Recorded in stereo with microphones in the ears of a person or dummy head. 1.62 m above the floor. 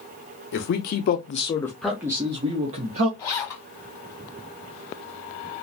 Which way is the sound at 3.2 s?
15° left (ahead or behind).